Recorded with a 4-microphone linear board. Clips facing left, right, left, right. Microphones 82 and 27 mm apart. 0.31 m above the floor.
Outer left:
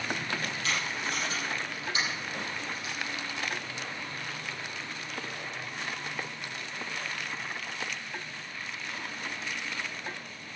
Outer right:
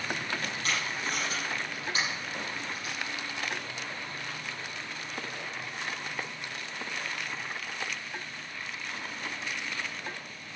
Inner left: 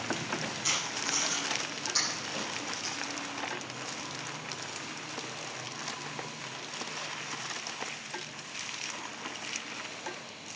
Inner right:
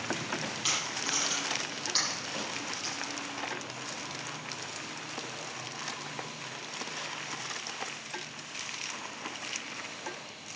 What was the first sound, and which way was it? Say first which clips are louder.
Tape being pulled: even, even; 40° right (ahead or behind).